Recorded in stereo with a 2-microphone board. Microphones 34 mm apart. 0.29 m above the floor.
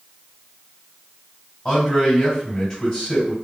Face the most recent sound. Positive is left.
turn(degrees=20)  # may be behind; listen again after turning